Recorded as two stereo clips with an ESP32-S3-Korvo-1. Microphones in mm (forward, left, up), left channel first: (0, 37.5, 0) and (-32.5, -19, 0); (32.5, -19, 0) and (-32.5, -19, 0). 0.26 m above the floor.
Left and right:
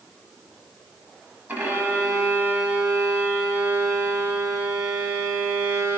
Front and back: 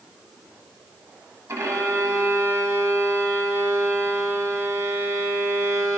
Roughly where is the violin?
Behind.